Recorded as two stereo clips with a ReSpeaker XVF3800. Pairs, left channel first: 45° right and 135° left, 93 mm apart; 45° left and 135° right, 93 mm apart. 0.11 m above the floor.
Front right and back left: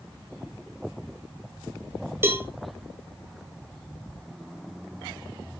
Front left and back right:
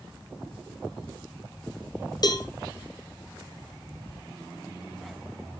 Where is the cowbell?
75° left, 1.2 m.